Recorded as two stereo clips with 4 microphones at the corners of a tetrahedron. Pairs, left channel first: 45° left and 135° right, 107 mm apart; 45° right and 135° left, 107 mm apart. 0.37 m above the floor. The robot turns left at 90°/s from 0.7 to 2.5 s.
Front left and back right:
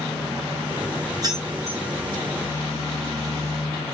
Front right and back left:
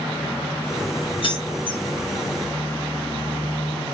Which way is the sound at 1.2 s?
80° right.